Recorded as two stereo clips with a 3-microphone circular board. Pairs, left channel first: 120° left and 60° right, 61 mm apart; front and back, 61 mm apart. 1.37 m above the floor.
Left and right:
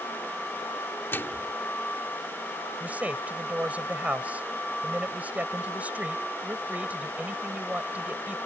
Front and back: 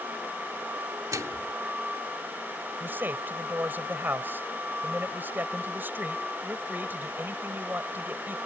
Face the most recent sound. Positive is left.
turn(degrees=-125)